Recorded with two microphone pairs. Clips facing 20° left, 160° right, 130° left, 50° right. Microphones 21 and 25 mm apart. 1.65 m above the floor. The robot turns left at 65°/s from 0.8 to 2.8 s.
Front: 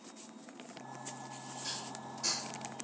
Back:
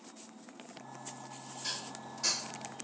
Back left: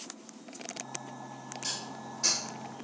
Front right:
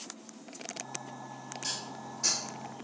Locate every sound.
1.6 s dishes clattering: 155° right, 0.7 m; by 2.8 s 130° left, 0.7 m